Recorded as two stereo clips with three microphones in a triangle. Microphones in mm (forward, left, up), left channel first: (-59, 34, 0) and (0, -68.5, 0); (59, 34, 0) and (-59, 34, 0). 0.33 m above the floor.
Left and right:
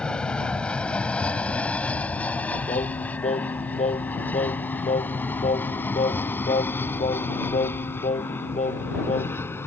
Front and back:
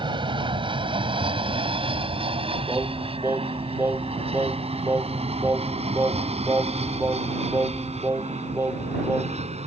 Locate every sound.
0.0 s an aircraft: 160° right; by 9.7 s 170° right
2.7 s singing: 110° left